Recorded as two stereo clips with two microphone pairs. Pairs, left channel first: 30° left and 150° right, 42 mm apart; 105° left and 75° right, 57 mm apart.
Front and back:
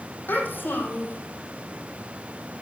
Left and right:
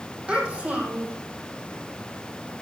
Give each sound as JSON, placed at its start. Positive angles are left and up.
{"t": 0.3, "sound": "a child speaking", "azimuth_deg": -5, "distance_m": 4.0}